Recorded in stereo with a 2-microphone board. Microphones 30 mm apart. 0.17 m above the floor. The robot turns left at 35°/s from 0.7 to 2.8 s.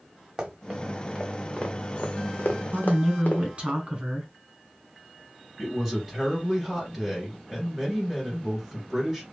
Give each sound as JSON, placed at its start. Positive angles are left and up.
{"t": 0.4, "sound": "running footsteps", "side_deg": -20, "distance_m": 1.5}
{"t": 2.7, "sound": "a woman speaking", "side_deg": -30, "distance_m": 1.2}
{"t": 5.6, "sound": "a woman speaking", "side_deg": -5, "distance_m": 2.0}